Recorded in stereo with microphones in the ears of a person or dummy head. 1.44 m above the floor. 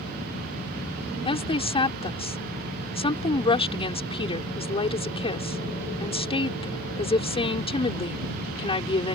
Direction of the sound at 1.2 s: 25° left (ahead or behind).